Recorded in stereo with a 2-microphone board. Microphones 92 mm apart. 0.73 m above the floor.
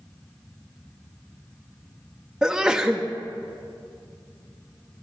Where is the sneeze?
10° right (ahead or behind), 0.7 m.